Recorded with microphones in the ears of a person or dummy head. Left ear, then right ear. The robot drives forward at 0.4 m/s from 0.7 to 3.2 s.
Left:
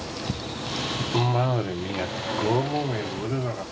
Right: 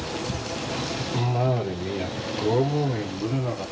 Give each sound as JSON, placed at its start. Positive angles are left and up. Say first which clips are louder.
{"t": 1.1, "sound": "a cough", "louder": "left 1 dB", "side_deg": 60, "distance_m": 0.8}